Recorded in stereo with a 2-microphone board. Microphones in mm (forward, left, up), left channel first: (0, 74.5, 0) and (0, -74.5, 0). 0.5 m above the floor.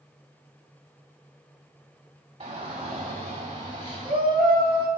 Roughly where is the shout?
Right.